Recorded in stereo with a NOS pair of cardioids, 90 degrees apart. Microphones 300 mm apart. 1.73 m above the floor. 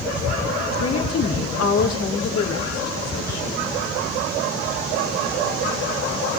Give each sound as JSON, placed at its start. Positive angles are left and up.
{"t": 0.8, "sound": "a woman speaking", "azimuth_deg": 65, "distance_m": 6.0}